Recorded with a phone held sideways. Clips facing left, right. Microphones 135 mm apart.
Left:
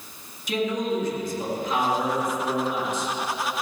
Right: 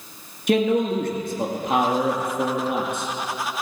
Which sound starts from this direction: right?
A man speaking, at 0.5 s.